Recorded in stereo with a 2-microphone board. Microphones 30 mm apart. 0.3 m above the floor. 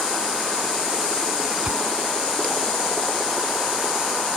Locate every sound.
1.6 s a whoosh: 30° right (ahead or behind)